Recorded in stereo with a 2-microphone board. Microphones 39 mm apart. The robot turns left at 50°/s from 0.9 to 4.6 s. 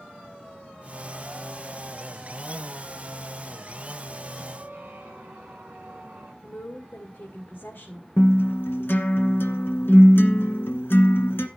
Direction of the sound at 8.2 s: 75° left (ahead or behind).